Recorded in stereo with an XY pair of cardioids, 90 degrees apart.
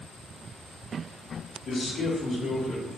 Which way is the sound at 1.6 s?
55° left.